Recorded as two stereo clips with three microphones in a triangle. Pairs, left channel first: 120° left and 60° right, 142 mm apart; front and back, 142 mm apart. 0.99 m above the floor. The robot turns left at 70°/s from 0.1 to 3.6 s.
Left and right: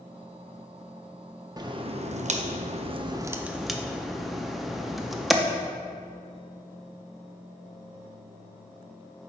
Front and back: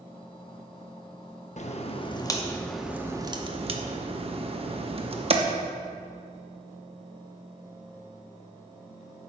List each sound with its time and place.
1.6 s a crack: 5° right, 0.5 m; by 5.3 s 150° right, 0.5 m